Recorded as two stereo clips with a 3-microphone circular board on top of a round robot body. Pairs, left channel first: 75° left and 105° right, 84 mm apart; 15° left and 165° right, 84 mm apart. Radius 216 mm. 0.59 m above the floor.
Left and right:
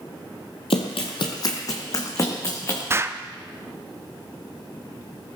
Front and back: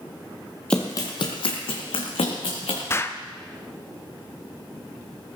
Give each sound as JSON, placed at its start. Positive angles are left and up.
{"t": 0.7, "sound": "running footsteps", "azimuth_deg": 95, "distance_m": 0.8}
{"t": 2.9, "sound": "an explosion", "azimuth_deg": -45, "distance_m": 0.8}